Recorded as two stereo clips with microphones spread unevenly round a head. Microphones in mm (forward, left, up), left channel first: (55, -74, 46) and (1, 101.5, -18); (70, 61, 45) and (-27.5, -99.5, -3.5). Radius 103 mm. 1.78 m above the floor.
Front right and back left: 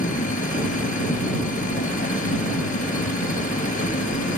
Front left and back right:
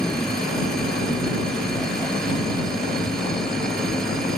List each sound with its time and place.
0.0 s a machine running: 25° right